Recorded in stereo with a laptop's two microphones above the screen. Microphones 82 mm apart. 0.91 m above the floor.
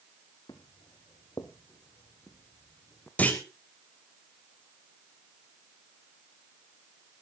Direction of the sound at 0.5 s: 55° left (ahead or behind).